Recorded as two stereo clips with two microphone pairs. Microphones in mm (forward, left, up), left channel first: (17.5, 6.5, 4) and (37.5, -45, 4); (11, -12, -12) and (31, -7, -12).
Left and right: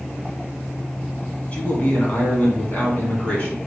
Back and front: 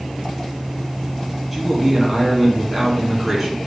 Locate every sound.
1.5 s a man speaking: 90° left, 1.4 m